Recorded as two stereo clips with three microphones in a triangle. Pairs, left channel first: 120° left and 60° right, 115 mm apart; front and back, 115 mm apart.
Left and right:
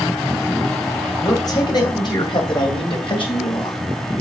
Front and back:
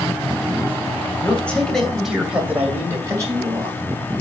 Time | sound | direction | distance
1.2 | a man speaking | 70° left | 2.5 m